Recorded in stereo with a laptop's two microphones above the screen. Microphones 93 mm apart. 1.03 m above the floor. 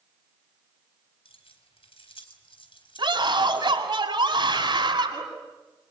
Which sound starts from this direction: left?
Keys jangling, at 1.2 s.